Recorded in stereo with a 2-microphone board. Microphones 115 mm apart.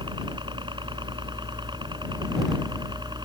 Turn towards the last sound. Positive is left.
turn(degrees=-40)  # may be behind; listen again after turning